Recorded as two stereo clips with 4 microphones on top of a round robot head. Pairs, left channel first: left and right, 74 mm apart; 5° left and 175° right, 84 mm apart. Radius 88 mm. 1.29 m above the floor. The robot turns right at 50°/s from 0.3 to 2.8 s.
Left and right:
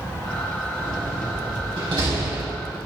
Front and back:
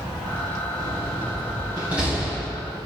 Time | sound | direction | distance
0.8 | a door slam | 155° right | 5.5 m